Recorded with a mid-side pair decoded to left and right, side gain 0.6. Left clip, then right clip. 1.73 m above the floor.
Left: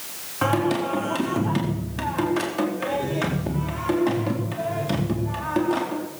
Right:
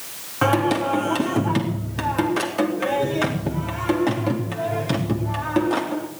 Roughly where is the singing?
Ahead.